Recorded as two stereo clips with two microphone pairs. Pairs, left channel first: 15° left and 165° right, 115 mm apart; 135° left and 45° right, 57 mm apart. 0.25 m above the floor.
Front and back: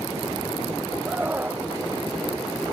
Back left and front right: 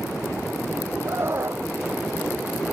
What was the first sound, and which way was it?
A scream, 90° right.